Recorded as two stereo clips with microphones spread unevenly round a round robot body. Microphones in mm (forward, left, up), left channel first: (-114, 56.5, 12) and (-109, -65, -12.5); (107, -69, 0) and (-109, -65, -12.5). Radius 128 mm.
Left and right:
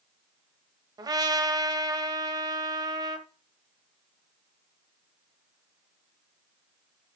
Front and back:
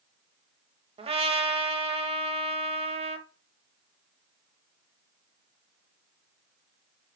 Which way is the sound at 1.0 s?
125° right.